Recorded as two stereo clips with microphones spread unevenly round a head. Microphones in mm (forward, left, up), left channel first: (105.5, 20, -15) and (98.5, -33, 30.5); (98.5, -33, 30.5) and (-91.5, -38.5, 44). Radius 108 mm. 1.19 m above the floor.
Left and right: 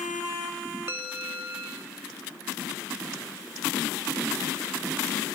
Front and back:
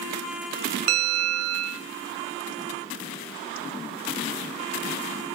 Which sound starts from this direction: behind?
A bell, at 0.9 s.